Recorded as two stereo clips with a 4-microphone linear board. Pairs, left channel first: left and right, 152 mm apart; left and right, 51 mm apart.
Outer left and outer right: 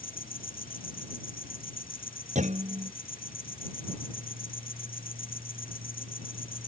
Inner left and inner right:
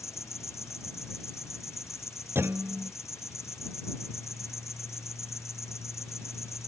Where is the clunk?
55° right (ahead or behind).